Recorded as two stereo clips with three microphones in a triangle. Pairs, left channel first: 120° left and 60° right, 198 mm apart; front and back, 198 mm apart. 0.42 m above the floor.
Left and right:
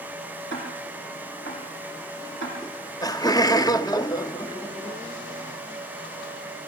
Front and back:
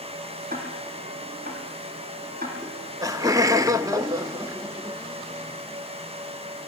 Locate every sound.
0.5 s ticking: 140° left, 8.5 m
2.6 s laughter: 145° left, 0.8 m